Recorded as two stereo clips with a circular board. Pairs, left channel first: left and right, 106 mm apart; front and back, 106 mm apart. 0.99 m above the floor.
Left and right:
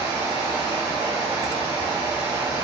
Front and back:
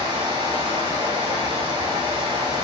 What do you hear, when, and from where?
0.0 s running water: 155° right, 1.3 m